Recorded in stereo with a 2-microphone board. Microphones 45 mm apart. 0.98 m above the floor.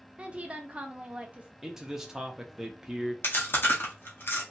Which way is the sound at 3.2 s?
45° left (ahead or behind).